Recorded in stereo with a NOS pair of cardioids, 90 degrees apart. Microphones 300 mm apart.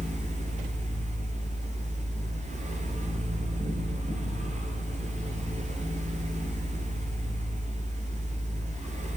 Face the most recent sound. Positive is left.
turn(degrees=-25)